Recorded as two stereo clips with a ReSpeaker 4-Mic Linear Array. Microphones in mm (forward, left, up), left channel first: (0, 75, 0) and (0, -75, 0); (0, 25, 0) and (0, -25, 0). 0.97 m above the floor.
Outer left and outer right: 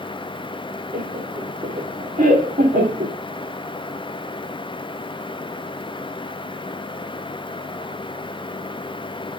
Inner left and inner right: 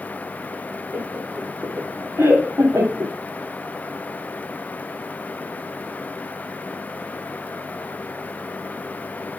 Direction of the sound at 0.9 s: 45° right (ahead or behind).